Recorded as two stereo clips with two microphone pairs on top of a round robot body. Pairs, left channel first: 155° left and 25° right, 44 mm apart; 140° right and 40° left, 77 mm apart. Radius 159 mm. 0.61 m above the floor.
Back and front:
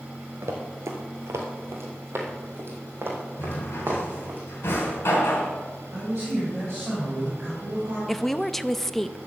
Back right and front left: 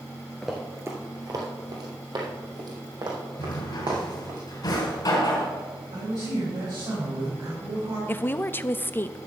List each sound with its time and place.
0.4 s running footsteps: 55° right, 0.6 m; by 4.4 s 15° left, 3.5 m
3.4 s a drawer: 175° right, 2.5 m
5.9 s a man speaking: 30° left, 4 m
8.1 s a woman speaking: 95° right, 0.6 m